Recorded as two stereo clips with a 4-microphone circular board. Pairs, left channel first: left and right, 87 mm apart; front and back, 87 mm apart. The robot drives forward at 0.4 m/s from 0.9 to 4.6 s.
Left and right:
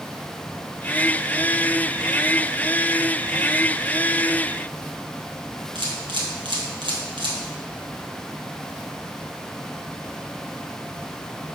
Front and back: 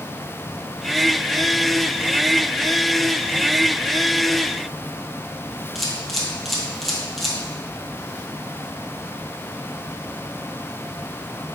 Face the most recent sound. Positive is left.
turn(degrees=-90)